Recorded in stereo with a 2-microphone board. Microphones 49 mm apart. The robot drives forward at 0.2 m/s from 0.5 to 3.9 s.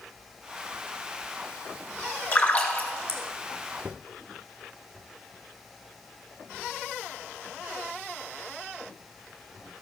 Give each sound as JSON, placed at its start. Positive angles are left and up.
{"t": 2.3, "sound": "a splash", "side_deg": 35, "distance_m": 1.3}